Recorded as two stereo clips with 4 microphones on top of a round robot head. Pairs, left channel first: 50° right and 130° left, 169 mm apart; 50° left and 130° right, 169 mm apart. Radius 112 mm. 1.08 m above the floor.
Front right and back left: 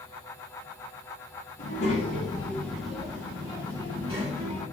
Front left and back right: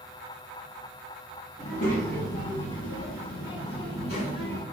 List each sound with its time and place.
1.6 s a child speaking: 5° right, 1.3 m; by 4.6 s 75° left, 2.5 m